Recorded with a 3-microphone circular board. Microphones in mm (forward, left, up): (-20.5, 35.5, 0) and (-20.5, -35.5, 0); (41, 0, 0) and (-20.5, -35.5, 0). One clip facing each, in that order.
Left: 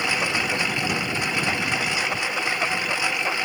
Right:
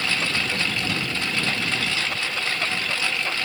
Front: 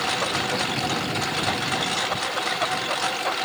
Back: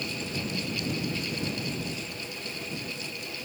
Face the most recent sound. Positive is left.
turn(degrees=15)